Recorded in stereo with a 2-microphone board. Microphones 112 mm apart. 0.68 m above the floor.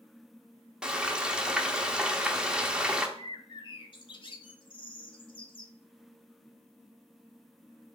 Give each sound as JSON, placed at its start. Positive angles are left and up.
{"t": 0.8, "sound": "frying", "side_deg": -10, "distance_m": 0.7}
{"t": 3.2, "sound": "a bird", "side_deg": 45, "distance_m": 0.7}